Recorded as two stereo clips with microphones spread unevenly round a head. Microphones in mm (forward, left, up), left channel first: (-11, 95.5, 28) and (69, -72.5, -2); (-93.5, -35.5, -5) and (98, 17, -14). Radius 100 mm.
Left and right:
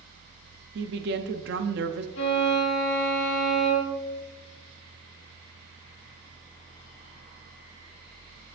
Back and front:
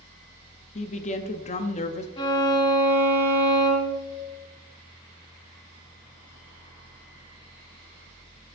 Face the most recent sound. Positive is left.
turn(degrees=130)